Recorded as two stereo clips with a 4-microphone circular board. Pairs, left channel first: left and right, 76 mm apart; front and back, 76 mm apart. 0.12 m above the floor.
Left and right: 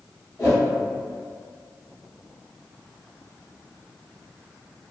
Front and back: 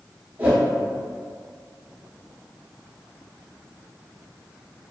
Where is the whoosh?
120° left, 0.8 m.